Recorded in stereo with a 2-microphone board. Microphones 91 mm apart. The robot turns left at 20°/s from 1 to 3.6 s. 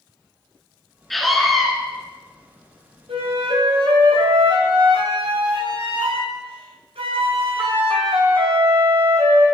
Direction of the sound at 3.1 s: 85° right.